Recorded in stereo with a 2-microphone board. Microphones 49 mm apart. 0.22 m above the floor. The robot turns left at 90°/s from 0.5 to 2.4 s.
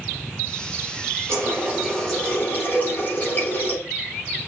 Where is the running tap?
120° right, 5 m; by 3.8 s 140° left, 5 m.